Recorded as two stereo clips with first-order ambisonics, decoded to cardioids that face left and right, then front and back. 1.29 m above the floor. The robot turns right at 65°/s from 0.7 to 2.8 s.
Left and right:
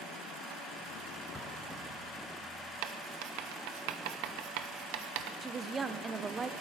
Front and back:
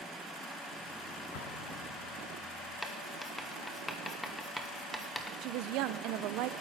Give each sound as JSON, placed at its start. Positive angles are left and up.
{"t": 1.3, "sound": "an explosion", "azimuth_deg": 5, "distance_m": 1.9}
{"t": 2.8, "sound": "writing", "azimuth_deg": -85, "distance_m": 0.9}
{"t": 5.4, "sound": "a woman speaking", "azimuth_deg": -165, "distance_m": 0.7}